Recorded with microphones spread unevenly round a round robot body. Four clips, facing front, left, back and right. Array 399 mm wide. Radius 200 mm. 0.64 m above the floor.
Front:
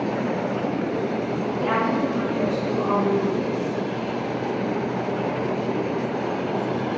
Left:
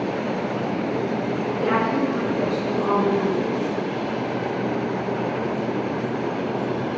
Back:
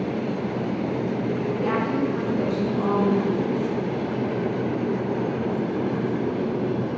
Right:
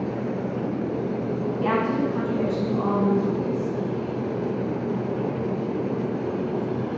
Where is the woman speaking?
100° right, 5 m; by 3.7 s 130° right, 5.5 m.